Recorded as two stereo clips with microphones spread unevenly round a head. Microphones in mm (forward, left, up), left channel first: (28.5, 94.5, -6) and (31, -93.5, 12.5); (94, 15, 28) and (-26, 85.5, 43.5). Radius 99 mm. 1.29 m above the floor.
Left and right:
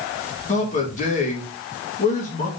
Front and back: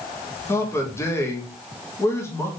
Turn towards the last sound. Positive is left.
turn(degrees=40)